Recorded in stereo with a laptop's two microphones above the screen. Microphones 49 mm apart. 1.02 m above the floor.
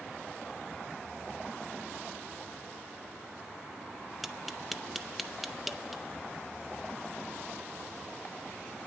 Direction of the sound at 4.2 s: Centre (ahead or behind).